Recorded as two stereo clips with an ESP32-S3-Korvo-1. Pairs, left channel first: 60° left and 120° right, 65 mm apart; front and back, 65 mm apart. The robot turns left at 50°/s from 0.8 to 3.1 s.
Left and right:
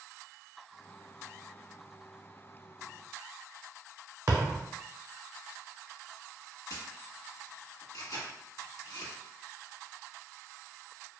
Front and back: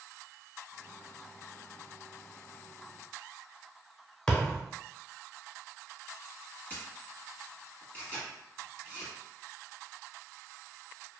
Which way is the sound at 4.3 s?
80° right.